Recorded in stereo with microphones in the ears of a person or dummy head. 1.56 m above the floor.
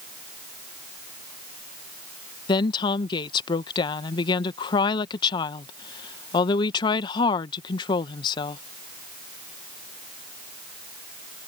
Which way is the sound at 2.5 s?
25° left (ahead or behind).